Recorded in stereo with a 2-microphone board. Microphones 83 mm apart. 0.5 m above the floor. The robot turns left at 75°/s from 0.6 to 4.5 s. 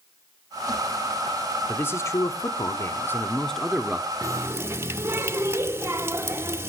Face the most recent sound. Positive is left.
turn(degrees=-30)  # may be behind; listen again after turning